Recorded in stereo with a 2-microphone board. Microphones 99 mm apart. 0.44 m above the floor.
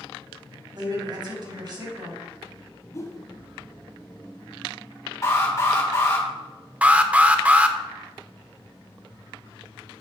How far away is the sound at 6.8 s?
About 0.7 m.